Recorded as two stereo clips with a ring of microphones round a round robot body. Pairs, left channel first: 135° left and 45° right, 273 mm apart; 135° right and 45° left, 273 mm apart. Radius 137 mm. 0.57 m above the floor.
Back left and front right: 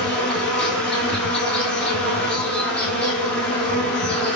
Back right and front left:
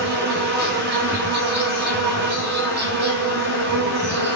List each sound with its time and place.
0.0 s an insect: 50° left, 1.4 m